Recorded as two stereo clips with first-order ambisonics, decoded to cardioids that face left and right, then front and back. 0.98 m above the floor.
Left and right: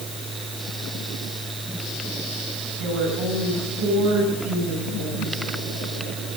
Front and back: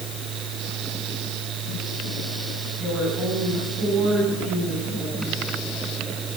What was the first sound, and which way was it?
A woman speaking, 90° right.